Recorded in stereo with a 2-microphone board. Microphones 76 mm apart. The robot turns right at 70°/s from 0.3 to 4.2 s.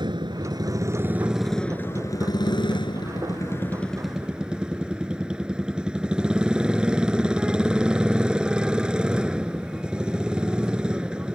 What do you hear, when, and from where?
0.0 s a motorcycle: 80° right; by 11.3 s 165° right